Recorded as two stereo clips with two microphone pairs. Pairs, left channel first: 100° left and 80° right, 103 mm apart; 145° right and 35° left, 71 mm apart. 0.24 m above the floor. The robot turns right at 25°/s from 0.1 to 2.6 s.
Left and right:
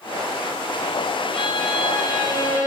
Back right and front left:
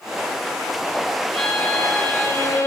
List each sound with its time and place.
1.3 s a violin: 130° left, 1.1 m; by 2.7 s 160° left, 1.1 m